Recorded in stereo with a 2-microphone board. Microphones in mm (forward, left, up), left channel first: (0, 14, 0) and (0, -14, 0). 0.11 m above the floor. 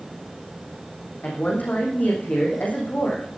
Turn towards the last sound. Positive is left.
turn(degrees=70)  # may be behind; listen again after turning